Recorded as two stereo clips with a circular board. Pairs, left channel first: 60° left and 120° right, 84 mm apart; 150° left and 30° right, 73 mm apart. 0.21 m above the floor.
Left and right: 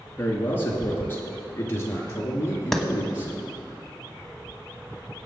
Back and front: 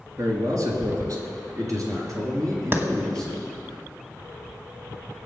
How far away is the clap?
About 1.3 m.